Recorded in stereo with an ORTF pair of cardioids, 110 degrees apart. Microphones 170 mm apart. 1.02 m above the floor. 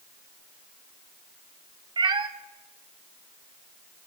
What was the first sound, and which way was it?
A cat meowing, 30° right.